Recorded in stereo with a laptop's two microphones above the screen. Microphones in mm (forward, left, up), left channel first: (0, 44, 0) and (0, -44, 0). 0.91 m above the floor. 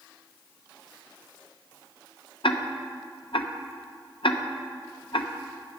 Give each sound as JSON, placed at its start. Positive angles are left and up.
{"t": 2.4, "sound": "ticking", "side_deg": 75, "distance_m": 0.6}